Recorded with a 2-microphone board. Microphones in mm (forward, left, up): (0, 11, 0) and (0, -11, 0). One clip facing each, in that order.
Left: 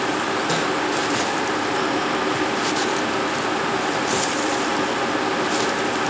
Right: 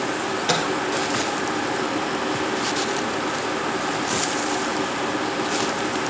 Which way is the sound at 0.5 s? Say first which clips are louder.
Right 4 dB; 60° right (ahead or behind).